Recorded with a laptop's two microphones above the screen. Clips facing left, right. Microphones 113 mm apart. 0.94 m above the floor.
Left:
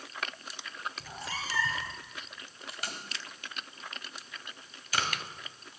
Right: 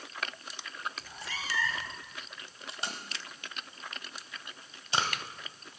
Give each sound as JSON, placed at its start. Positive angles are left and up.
{"t": 1.0, "sound": "a cat meowing", "side_deg": 35, "distance_m": 1.2}
{"t": 2.7, "sound": "tape being pulled", "side_deg": -25, "distance_m": 1.3}